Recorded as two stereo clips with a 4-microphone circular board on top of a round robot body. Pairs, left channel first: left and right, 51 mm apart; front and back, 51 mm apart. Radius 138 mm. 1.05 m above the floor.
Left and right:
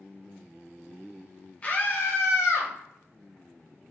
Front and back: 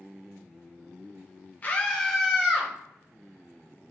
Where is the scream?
40° left, 0.7 m; by 2.7 s 110° left, 1.3 m.